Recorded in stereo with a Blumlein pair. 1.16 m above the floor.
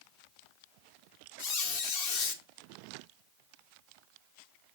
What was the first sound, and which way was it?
A squeak, 50° left.